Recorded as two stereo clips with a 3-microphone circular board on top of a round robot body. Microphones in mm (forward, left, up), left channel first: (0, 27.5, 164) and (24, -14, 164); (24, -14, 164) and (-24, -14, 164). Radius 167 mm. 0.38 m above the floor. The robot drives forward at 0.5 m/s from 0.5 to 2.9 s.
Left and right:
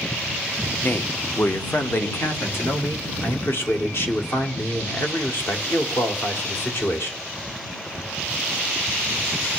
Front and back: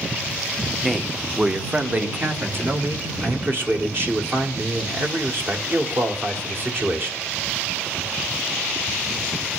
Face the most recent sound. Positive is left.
turn(degrees=145)